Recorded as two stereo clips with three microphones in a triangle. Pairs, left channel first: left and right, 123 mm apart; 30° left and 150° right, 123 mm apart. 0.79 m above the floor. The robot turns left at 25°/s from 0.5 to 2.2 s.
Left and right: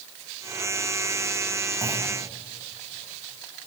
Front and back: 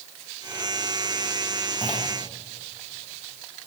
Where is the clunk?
25° right, 4.5 m; by 2.1 s 30° right, 4.5 m.